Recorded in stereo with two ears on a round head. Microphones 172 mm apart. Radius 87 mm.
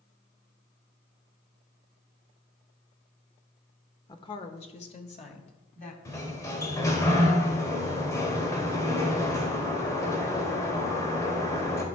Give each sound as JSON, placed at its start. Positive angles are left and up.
{"t": 4.1, "sound": "a woman speaking", "side_deg": 20, "distance_m": 0.9}
{"t": 6.0, "sound": "a sliding door", "side_deg": 15, "distance_m": 1.5}